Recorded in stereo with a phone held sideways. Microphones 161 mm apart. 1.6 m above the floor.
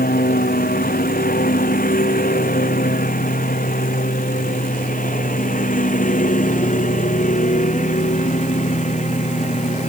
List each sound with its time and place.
0.0 s a lawn mower: 65° left (ahead or behind); by 9.9 s 50° left (ahead or behind)